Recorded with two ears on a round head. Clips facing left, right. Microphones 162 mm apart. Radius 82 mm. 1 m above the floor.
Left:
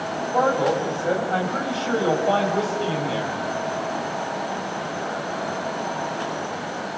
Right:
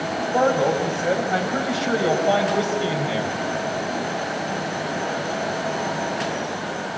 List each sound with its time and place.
0.3 s a man speaking: 20° right (ahead or behind), 7 m; by 3.4 s 10° right (ahead or behind), 6 m